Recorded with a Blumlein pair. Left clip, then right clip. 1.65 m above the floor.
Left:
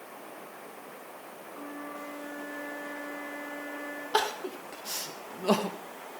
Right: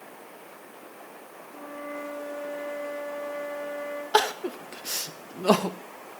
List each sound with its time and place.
1.5 s a flute: 55° right, 4 m
4.1 s crying: 20° right, 0.9 m